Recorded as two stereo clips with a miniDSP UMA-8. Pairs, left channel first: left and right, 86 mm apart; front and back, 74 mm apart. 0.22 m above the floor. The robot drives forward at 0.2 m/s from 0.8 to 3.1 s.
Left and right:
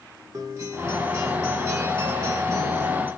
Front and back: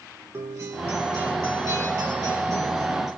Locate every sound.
0.3 s a guitar: 140° right, 1.3 m; by 3.1 s 150° right, 1.6 m